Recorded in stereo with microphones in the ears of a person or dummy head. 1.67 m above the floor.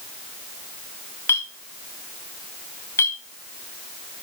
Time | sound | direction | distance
1.3 | a clink | 20° left (ahead or behind) | 1.1 m